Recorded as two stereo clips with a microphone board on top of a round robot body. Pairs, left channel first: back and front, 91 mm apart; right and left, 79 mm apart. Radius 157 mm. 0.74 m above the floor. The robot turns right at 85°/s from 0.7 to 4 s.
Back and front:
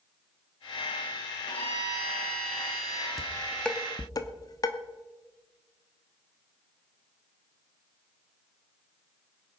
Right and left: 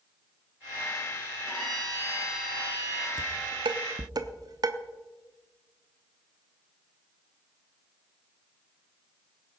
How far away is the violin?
About 4 m.